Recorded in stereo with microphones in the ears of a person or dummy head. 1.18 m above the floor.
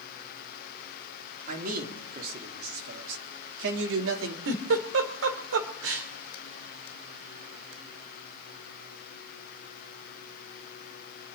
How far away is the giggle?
About 2.0 m.